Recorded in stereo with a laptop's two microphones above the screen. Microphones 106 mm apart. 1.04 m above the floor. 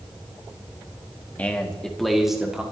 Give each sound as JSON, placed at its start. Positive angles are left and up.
{"t": 1.4, "sound": "a man speaking", "side_deg": 15, "distance_m": 1.4}